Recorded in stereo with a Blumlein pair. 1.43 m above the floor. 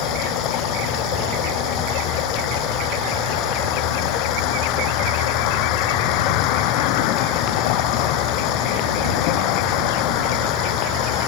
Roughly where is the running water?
Ahead left.